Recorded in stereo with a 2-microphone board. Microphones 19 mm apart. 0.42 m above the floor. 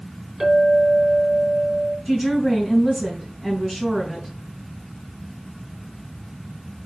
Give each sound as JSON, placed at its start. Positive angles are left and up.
{"t": 0.4, "sound": "a clink", "side_deg": -40, "distance_m": 4.5}
{"t": 2.0, "sound": "a woman speaking", "side_deg": -10, "distance_m": 3.0}